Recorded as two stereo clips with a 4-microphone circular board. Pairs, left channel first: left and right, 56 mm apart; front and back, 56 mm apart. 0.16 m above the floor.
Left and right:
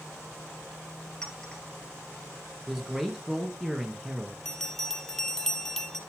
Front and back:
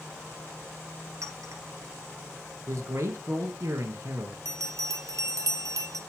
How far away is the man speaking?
About 2 m.